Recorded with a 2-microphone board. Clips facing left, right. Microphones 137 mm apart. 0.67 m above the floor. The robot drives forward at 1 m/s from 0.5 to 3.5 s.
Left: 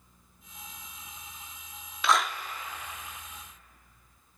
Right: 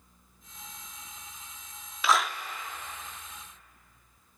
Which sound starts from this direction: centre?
A clap, at 2.0 s.